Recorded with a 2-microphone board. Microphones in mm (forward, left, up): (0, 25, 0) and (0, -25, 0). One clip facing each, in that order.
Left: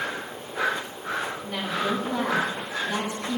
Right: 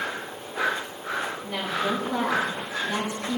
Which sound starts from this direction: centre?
A woman speaking, at 1.4 s.